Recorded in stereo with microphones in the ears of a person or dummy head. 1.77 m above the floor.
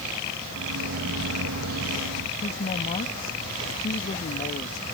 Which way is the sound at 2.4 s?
40° left (ahead or behind).